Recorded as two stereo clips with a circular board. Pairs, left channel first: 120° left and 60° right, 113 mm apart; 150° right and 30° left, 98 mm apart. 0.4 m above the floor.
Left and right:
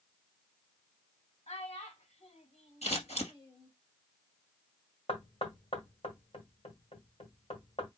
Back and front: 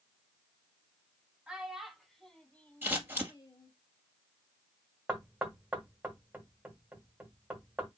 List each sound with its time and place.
1.5 s a child speaking: 110° left, 2 m; by 3.7 s straight behind, 1.5 m
2.8 s scissors: 100° left, 2.5 m
5.1 s knocking: 100° left, 1.6 m